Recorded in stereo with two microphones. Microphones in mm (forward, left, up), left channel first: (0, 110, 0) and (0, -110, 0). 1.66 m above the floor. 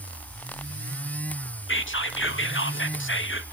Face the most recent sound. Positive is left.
turn(degrees=70)  # may be behind; listen again after turning